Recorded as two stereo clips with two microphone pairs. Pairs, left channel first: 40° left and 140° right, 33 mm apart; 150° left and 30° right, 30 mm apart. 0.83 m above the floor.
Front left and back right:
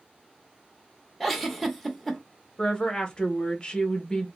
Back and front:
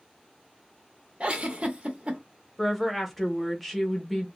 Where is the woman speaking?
70° left, 0.9 m.